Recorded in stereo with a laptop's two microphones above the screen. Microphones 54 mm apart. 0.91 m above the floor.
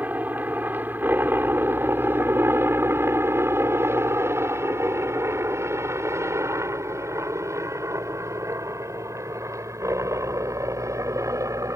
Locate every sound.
0.0 s a helicopter: 30° right (ahead or behind); by 11.8 s 75° right (ahead or behind)